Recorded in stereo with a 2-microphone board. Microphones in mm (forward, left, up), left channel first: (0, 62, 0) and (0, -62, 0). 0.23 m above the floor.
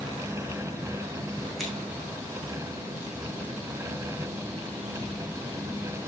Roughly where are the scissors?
Centre.